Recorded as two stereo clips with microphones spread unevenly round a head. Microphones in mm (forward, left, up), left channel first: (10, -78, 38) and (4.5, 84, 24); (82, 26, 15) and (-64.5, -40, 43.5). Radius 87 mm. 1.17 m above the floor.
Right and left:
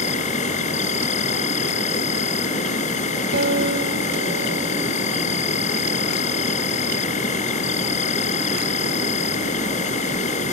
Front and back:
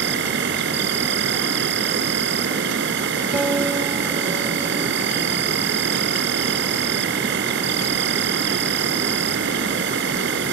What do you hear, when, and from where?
0.0 s an insect: 140° right
3.3 s a guitar: 120° left